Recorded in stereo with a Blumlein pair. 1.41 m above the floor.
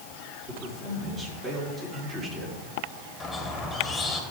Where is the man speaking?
20° right, 5 m.